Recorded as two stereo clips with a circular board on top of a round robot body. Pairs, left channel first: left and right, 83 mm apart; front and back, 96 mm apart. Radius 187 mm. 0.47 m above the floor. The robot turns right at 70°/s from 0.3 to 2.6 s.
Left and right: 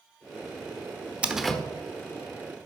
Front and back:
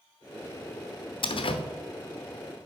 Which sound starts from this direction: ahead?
A door slam, at 1.2 s.